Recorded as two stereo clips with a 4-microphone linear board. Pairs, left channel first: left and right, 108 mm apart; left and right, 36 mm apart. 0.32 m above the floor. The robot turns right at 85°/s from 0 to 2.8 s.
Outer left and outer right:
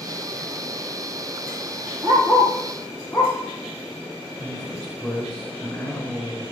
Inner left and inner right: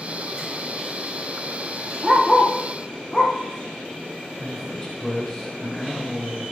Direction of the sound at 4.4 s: 10° left (ahead or behind).